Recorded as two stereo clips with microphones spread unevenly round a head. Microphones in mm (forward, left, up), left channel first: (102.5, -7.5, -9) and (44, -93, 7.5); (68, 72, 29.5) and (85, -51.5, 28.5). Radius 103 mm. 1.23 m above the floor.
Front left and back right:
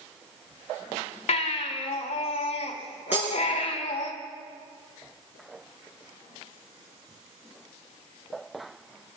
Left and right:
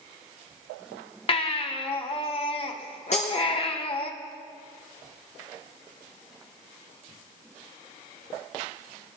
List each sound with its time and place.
1.3 s a baby crying: 65° left, 1.4 m
3.1 s breaking glass: 155° left, 6 m